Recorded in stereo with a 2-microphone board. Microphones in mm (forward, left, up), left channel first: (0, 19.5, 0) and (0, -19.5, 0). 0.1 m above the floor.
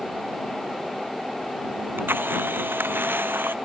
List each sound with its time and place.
1.8 s a camera shutter: 70° right (ahead or behind)